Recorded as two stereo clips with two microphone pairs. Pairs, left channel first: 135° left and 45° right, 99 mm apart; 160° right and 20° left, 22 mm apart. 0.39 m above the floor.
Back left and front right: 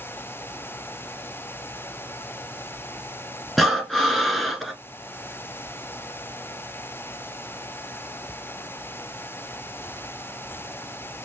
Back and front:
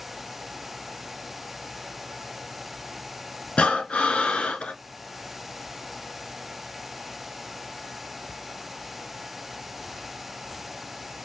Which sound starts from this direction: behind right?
Breathing, at 3.6 s.